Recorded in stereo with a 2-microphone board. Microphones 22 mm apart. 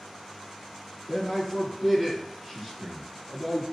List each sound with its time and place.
1.1 s a man speaking: 25° left (ahead or behind), 1.6 m